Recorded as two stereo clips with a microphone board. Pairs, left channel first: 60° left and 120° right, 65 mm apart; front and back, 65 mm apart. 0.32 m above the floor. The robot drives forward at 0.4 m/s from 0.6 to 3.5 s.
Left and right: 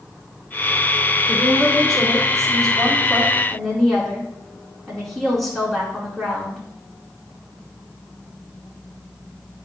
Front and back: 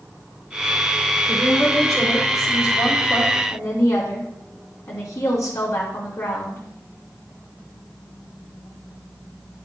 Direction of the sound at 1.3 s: 25° right.